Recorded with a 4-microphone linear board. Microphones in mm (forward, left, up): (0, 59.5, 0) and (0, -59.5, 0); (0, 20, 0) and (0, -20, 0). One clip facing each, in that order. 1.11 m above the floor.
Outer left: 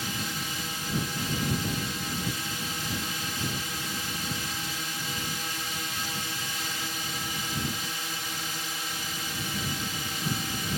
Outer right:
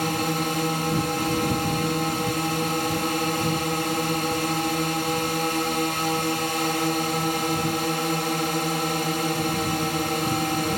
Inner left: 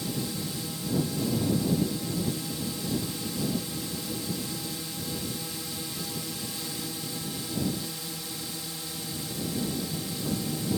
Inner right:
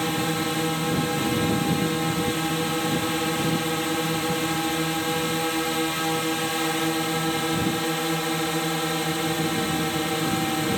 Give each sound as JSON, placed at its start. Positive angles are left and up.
{"t": 0.0, "sound": "a drone", "side_deg": -65}